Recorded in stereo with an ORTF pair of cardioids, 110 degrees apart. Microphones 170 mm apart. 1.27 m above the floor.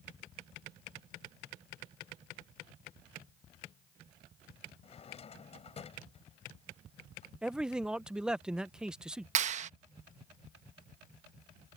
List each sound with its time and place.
4.8 s a drawer: 40° left
7.4 s a man speaking: 5° right
9.3 s a clap: 45° right